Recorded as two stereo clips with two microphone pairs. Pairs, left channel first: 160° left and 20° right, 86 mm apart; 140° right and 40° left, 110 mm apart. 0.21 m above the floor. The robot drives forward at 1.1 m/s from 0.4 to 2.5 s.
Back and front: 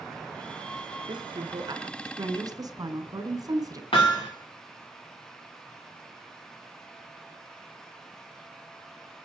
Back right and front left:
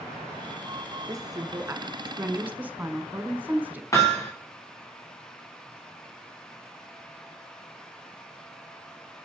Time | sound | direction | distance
1.1 | a woman speaking | 15° right | 3.5 m
3.9 | hammering | 160° left | 4.5 m